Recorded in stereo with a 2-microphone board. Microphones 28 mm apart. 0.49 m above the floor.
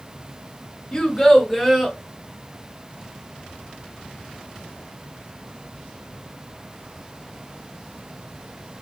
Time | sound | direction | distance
0.9 | a child speaking | 25° left (ahead or behind) | 0.8 m